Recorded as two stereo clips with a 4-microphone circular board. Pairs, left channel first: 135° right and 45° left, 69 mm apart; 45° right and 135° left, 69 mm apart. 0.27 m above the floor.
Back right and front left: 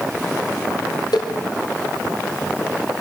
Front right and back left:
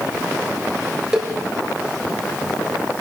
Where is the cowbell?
145° right, 4 m.